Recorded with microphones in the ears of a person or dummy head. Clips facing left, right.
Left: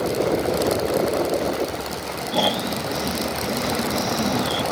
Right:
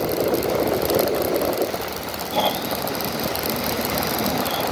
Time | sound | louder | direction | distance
2.3 | snoring | even | 15° left (ahead or behind) | ?